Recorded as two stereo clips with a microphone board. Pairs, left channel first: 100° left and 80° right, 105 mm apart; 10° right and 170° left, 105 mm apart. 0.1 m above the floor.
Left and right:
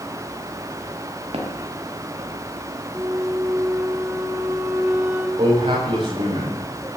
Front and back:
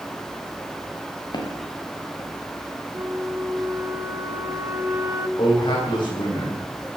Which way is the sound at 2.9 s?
145° right.